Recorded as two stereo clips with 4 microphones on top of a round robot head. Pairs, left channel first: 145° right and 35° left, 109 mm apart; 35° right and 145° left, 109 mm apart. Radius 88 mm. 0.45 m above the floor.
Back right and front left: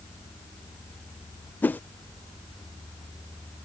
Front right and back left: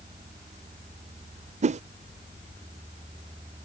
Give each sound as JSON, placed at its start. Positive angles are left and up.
{"t": 1.6, "sound": "a whoosh", "azimuth_deg": 140}